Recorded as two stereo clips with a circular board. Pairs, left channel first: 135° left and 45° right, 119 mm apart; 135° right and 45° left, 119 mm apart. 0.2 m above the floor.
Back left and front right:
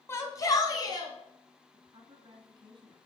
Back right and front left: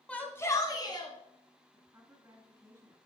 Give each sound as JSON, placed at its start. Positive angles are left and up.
{"t": 0.1, "sound": "a shout", "azimuth_deg": 160, "distance_m": 1.4}
{"t": 1.7, "sound": "a woman speaking", "azimuth_deg": -15, "distance_m": 1.8}